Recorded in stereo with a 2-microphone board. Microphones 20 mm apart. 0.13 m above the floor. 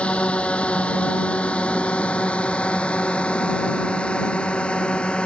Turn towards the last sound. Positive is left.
turn(degrees=60)  # may be behind; listen again after turning